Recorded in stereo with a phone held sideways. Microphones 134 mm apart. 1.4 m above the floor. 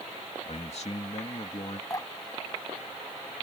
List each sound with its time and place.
0.5 s a man speaking: 55° left (ahead or behind)
1.9 s dripping: 25° left (ahead or behind)